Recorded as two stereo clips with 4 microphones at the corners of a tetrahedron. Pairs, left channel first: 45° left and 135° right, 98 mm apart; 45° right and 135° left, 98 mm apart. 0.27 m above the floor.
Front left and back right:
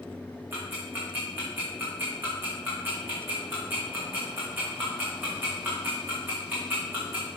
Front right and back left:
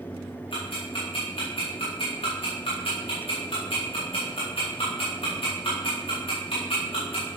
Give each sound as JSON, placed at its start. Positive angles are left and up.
{"t": 0.5, "sound": "ticking", "azimuth_deg": -65, "distance_m": 4.5}